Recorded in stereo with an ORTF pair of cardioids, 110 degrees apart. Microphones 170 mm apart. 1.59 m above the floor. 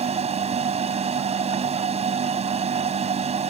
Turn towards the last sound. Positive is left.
turn(degrees=-40)